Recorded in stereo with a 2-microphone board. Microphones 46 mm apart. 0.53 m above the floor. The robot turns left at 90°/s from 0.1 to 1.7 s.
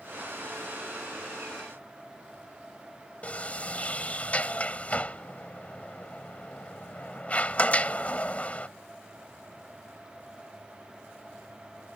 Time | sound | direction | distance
3.2 | a sliding door | 25° left (ahead or behind) | ?